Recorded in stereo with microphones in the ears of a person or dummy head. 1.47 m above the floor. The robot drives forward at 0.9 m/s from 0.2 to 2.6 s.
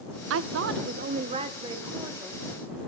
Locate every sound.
0.3 s a woman speaking: 65° right (ahead or behind), 0.6 m; by 2.4 s 15° right (ahead or behind), 1.9 m